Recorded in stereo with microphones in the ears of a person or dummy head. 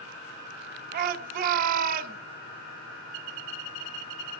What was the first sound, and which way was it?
A shout, 45° right (ahead or behind).